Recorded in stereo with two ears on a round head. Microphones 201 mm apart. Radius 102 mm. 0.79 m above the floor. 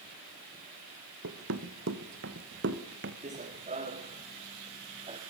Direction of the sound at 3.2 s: 35° right (ahead or behind).